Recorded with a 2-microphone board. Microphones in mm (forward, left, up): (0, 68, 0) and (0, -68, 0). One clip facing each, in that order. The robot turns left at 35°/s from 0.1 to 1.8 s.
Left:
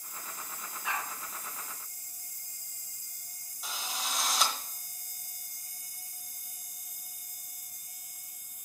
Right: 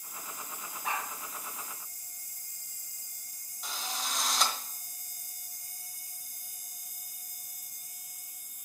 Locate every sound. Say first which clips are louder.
0.8 s a dog barking: right 1 dB; 45° right (ahead or behind), 1.9 m; by 1.1 s 35° right (ahead or behind), 1.9 m
3.6 s a drill: even; centre (ahead or behind), 1.4 m